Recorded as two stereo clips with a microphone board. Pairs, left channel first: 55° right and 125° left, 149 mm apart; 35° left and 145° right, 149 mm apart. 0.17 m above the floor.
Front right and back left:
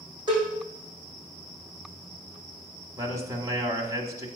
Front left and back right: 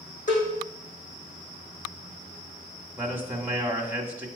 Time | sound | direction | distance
0.3 | a cowbell | 65° left | 5 m
3.0 | a man speaking | 155° left | 1.2 m